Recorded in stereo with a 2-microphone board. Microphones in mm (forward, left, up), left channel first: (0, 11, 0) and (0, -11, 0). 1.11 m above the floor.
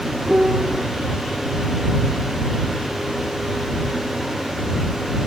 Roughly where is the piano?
Right.